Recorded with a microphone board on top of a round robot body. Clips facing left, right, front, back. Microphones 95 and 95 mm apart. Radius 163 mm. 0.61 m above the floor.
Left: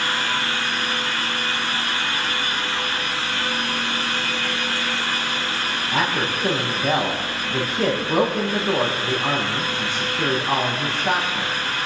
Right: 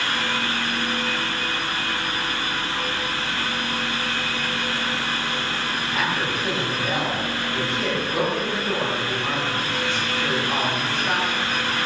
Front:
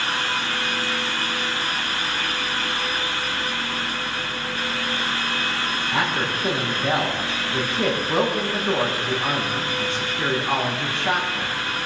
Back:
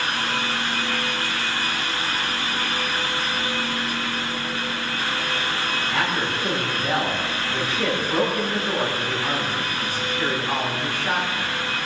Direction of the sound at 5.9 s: 60° left.